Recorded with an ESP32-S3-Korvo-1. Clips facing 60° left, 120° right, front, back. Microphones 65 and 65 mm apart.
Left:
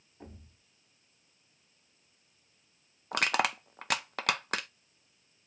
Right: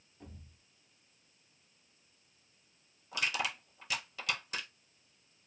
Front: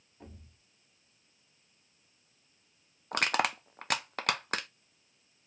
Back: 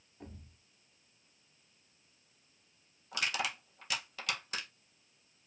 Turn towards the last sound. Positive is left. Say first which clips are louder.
# left 7 dB, front 7 dB
turn(degrees=35)